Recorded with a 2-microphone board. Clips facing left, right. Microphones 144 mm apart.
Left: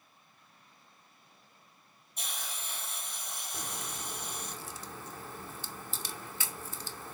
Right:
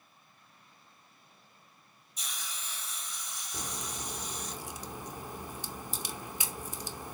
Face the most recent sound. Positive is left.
turn(degrees=-15)  # may be behind; listen again after turning